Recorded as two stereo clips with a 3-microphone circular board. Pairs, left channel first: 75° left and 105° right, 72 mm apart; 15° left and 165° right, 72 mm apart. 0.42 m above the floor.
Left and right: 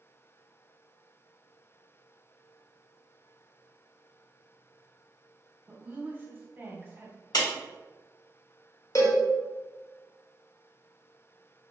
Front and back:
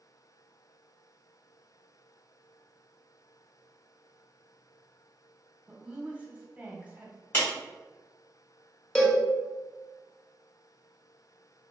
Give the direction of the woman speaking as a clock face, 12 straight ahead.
4 o'clock.